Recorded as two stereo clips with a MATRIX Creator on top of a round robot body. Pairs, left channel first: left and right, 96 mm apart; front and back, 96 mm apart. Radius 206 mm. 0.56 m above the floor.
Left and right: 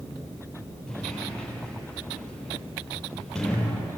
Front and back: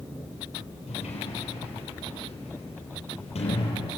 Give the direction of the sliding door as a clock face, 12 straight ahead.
12 o'clock.